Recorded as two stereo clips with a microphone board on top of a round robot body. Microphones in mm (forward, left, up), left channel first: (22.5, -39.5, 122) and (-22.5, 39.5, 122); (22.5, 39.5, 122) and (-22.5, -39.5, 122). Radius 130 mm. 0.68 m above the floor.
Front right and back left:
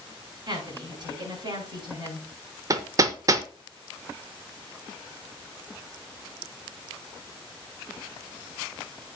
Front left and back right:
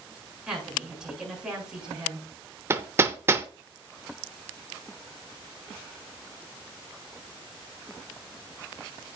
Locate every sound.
0.5 s a woman speaking: 155° left, 8 m
2.7 s hammering: 175° left, 0.6 m